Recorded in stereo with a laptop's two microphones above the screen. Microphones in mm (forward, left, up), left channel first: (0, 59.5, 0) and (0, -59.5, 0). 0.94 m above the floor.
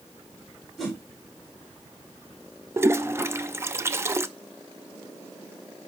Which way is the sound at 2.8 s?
20° right (ahead or behind).